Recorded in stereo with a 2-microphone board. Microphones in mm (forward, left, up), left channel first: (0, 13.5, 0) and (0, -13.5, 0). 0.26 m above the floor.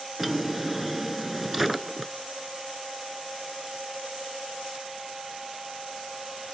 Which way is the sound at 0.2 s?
5° right (ahead or behind).